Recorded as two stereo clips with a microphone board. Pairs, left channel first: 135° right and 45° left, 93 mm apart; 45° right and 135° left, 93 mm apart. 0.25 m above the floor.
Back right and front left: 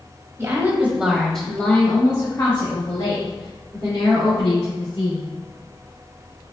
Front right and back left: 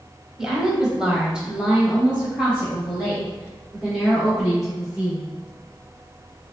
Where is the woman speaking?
55° left, 1.2 m; by 5.2 s 140° right, 3 m.